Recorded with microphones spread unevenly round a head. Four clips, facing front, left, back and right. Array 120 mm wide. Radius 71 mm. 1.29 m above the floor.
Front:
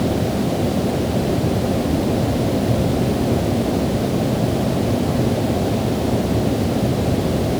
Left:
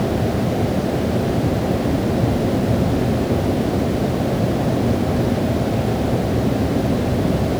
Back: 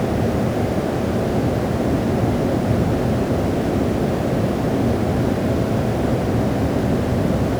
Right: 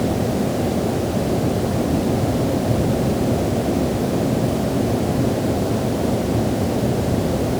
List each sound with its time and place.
Only background noise.